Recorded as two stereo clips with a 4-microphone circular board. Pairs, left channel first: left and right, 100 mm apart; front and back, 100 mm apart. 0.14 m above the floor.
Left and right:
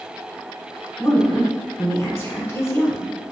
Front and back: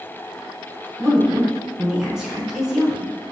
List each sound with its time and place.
1.0 s a woman speaking: 100° left, 1.4 m